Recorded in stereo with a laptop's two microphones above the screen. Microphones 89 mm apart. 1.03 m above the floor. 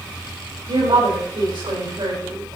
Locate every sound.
0.7 s a woman speaking: 85° right, 5 m